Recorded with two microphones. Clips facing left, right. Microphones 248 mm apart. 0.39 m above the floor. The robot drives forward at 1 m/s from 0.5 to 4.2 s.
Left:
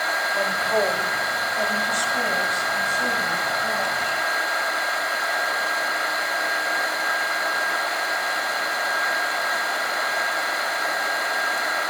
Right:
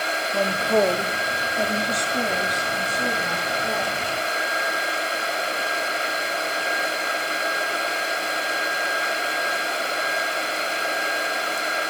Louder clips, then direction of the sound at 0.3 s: Right 4 dB; 40° right (ahead or behind).